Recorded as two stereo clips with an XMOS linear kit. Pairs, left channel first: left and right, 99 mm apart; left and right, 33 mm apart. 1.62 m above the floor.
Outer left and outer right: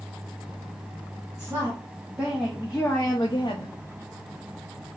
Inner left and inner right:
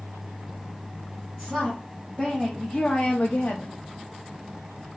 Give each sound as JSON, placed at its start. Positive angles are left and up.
{"t": 1.4, "sound": "a woman speaking", "side_deg": -25, "distance_m": 1.4}